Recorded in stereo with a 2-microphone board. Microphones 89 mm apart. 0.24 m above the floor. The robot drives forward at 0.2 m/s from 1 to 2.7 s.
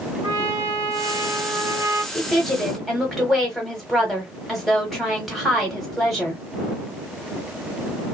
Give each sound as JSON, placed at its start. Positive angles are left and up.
{"t": 0.2, "sound": "a trumpet", "side_deg": -45, "distance_m": 2.5}
{"t": 2.1, "sound": "a woman speaking", "side_deg": 0, "distance_m": 1.1}